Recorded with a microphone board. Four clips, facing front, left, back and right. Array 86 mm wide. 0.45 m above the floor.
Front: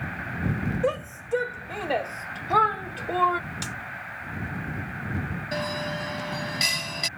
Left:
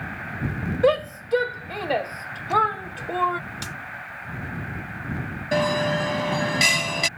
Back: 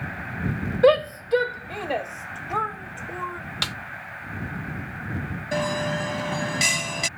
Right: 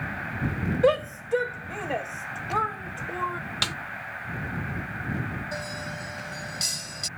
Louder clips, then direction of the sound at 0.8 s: Left 2 dB, back 14 dB; 170° left.